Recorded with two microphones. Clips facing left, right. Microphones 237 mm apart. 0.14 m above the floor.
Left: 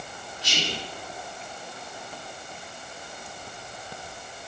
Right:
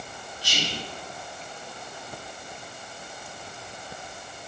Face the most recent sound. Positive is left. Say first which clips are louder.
# left 1 dB
turn(degrees=25)  # may be behind; listen again after turning